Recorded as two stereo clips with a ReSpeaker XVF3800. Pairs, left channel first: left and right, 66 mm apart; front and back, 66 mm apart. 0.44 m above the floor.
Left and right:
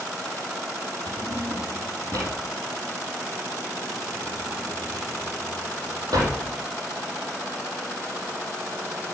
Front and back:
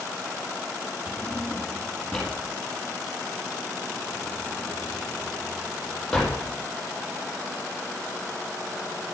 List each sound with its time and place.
1.1 s a drawer: 85° right, 4.5 m